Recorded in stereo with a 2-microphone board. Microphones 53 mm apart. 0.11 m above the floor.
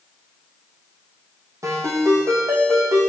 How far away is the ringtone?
About 3 m.